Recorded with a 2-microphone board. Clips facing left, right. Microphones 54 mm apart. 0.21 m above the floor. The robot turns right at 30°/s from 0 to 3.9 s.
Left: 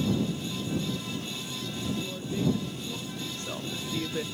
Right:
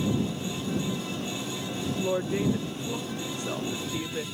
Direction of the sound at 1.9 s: 60° right.